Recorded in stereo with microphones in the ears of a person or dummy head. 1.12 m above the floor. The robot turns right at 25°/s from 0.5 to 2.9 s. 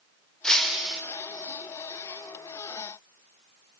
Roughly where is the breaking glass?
Centre.